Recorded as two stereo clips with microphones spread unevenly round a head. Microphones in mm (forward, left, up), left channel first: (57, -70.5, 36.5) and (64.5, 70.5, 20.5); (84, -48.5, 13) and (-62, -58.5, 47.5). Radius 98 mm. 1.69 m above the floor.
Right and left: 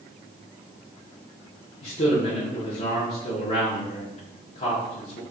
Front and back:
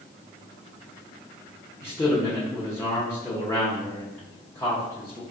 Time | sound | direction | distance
1.8 | a man speaking | 80° right | 0.9 m